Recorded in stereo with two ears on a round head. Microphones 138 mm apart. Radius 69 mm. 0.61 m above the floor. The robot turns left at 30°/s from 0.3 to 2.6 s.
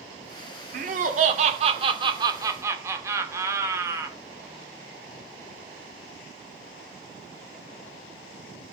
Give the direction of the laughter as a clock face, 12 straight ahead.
3 o'clock.